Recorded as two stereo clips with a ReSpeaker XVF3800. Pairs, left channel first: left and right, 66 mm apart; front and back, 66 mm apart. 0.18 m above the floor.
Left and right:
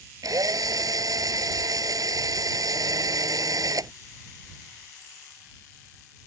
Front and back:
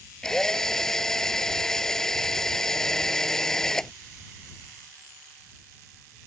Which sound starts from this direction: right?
A drill, at 0.2 s.